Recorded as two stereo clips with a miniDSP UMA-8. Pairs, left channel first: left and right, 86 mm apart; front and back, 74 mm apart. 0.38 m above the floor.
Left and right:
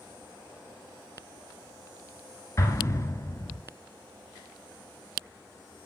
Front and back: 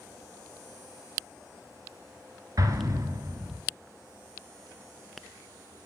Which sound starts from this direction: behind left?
An explosion, at 2.6 s.